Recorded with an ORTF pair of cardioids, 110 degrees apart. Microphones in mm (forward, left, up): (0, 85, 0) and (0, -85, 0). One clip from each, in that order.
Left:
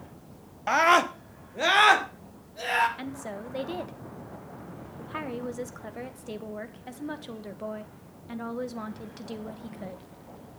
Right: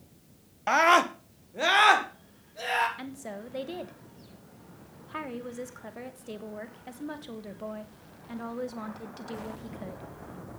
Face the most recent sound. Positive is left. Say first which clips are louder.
# left 3 dB
turn(degrees=10)